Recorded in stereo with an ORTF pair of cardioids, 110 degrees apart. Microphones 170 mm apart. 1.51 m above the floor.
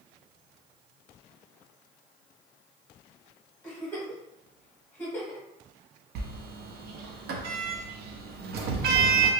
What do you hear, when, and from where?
3.6 s a giggle: 10° left, 1.2 m
6.2 s a sliding door: 70° right, 0.5 m